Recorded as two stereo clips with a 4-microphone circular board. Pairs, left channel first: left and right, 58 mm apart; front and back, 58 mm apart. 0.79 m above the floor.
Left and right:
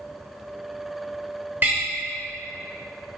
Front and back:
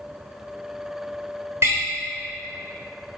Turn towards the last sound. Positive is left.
turn(degrees=-145)